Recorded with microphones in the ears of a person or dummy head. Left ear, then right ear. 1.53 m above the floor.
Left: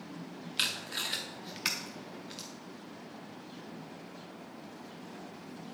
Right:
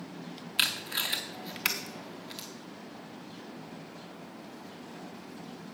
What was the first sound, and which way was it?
Tape being pulled, 15° right (ahead or behind).